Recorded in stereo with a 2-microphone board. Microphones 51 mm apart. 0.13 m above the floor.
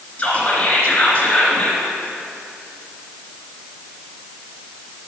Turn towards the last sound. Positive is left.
turn(degrees=25)  # may be behind; listen again after turning